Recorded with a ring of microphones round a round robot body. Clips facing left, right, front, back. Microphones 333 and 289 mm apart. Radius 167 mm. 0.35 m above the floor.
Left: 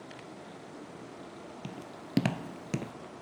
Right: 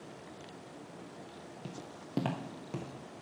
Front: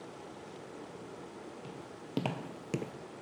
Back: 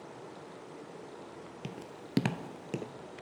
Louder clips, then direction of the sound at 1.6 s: Left 1 dB, back 2 dB; 155° left.